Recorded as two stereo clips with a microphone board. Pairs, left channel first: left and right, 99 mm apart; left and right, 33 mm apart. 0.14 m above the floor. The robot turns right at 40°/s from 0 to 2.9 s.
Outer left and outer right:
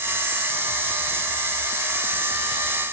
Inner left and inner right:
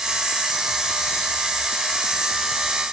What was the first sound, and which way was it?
Only background noise.